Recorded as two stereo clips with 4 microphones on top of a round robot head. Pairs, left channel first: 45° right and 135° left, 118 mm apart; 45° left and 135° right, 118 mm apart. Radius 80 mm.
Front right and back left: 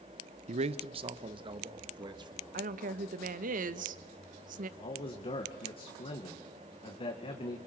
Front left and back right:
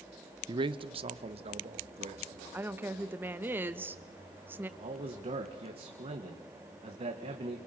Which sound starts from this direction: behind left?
A woman speaking, at 2.5 s.